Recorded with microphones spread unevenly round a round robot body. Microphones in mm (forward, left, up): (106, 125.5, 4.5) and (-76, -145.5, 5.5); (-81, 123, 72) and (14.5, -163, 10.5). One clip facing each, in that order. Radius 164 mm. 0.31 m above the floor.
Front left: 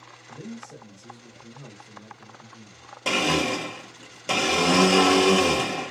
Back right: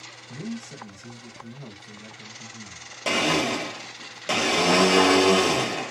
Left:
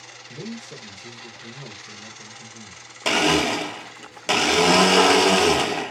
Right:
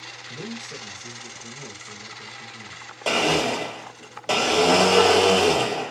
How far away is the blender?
About 0.7 m.